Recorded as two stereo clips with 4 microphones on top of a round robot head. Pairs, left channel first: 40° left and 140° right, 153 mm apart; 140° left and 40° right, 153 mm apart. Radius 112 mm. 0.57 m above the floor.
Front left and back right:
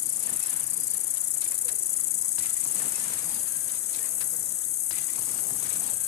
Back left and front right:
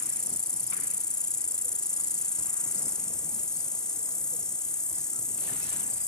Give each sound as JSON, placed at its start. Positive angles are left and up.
{"t": 0.0, "sound": "an insect", "azimuth_deg": 55}